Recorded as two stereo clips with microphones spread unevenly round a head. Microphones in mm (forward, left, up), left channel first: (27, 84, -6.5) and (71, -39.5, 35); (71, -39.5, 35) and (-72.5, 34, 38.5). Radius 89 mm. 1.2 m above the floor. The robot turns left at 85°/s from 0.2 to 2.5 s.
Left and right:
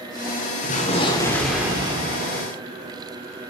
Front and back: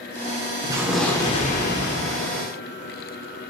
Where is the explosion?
90° left, 3 m; by 2.5 s 70° right, 3 m.